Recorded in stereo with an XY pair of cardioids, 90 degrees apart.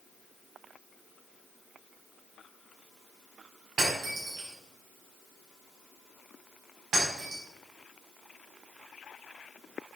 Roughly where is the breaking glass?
Right.